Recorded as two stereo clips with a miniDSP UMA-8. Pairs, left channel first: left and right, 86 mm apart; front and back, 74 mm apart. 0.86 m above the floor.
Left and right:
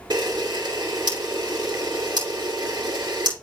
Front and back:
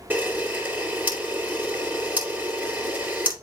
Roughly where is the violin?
I don't hear a violin.